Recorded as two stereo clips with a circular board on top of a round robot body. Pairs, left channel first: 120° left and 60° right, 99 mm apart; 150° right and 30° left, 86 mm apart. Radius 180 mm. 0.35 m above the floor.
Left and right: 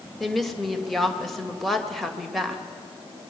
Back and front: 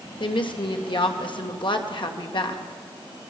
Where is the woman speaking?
150° right, 2.5 m.